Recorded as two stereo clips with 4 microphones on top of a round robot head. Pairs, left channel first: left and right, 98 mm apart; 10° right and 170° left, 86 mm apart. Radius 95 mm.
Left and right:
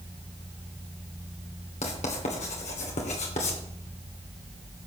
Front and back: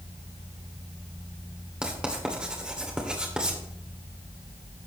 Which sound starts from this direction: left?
Writing, at 1.8 s.